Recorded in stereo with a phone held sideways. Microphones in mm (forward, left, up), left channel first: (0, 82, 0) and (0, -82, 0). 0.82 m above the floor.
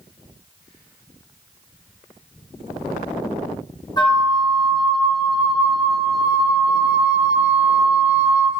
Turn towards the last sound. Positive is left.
turn(degrees=25)  # may be behind; listen again after turning